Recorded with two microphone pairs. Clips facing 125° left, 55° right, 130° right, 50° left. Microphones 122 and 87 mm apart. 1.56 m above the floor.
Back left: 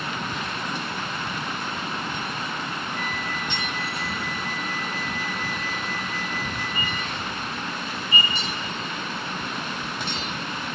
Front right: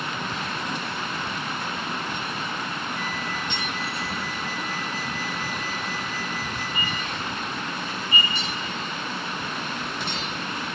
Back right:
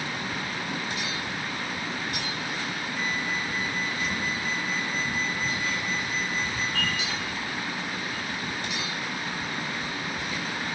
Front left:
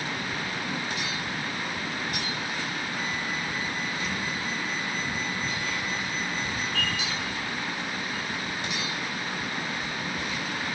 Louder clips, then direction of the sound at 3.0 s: Even, back right 1 dB; 90° left.